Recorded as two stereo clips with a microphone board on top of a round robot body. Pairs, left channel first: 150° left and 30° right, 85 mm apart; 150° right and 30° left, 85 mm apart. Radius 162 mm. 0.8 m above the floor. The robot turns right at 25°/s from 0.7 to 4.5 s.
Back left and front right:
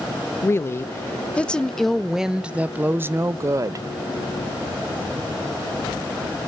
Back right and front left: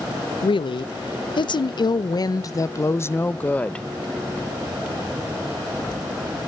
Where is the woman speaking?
150° right, 0.6 m; by 3.9 s 70° right, 0.6 m.